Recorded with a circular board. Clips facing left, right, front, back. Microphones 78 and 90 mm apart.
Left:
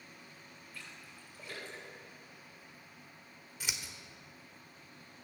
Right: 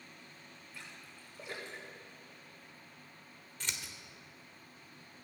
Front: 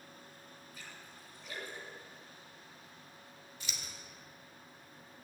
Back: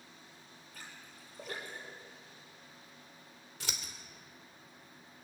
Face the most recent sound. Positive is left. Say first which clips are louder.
# even, back 4 dB
turn(degrees=170)